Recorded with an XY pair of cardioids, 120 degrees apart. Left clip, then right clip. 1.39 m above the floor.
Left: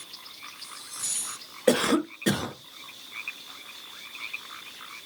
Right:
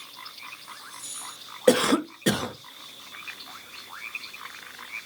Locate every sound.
1.7 s a cough: 10° right, 0.6 m